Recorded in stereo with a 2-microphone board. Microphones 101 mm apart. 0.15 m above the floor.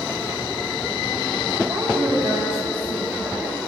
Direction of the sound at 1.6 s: 60° right (ahead or behind).